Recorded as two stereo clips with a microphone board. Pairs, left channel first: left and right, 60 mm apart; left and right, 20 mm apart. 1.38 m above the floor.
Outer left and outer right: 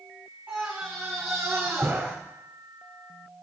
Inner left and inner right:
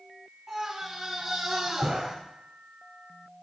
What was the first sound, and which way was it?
A scream, 30° right (ahead or behind).